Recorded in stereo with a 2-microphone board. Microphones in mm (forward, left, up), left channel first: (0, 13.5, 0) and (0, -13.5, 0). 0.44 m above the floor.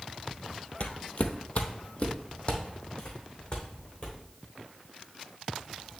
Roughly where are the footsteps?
Left.